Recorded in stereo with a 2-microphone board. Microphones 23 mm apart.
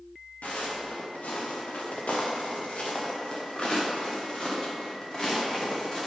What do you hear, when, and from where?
0.4 s footsteps: 85° left, 2.5 m; by 6.1 s 25° left (ahead or behind), 3.5 m